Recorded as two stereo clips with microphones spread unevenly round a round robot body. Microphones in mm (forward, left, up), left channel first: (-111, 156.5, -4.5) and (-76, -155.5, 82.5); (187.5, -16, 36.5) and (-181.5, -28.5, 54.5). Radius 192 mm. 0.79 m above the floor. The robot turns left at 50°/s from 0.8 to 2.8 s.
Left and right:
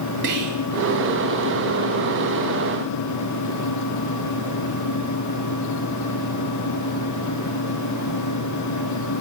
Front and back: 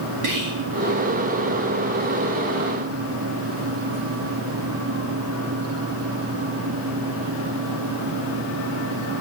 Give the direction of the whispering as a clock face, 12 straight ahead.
5 o'clock.